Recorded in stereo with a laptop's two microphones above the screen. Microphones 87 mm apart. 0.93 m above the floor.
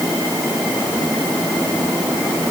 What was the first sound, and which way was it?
Only background noise.